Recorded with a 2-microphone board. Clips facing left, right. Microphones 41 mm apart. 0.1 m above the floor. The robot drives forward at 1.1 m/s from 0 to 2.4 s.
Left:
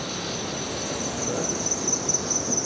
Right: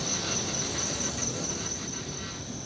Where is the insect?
25° left (ahead or behind), 3 m; by 2.7 s 80° left, 1.3 m.